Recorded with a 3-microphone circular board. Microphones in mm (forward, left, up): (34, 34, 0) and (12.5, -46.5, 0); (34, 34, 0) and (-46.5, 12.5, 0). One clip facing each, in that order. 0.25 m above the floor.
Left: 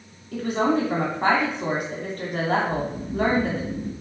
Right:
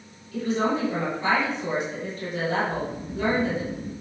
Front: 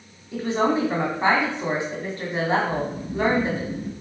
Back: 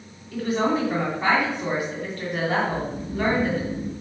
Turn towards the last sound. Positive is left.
turn(degrees=-15)